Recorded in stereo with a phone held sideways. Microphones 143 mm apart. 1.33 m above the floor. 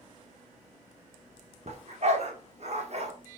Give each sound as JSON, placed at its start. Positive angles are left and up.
{"t": 1.7, "sound": "a dog barking", "side_deg": -50, "distance_m": 1.3}